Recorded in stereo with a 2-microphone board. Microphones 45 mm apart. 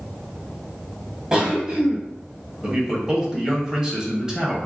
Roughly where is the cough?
Centre.